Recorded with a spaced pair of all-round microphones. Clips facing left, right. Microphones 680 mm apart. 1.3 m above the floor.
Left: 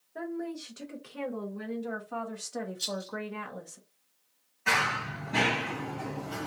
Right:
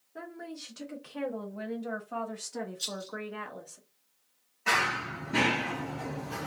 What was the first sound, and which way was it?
A woman speaking, 35° right (ahead or behind).